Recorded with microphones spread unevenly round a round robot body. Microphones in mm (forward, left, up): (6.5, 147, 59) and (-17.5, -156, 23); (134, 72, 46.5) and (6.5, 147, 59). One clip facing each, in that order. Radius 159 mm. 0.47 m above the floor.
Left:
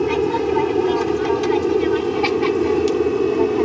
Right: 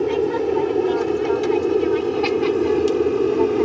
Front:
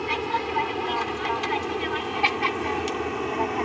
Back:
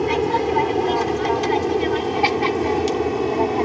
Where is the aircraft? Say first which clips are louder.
Left 1 dB, back 9 dB; 150° left; by 3.6 s 175° left.